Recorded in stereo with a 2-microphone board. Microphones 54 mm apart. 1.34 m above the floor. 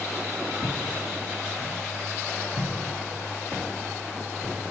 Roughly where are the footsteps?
Right.